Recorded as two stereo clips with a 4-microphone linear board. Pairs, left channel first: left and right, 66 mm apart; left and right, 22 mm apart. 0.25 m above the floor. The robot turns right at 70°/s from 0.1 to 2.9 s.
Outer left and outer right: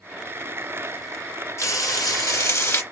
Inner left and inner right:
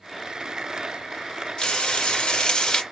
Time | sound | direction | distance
1.6 | frying | 55° left | 2 m